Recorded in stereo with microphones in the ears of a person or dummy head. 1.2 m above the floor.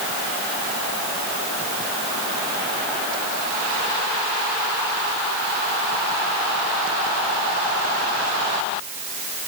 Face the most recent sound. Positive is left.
No sound to turn to.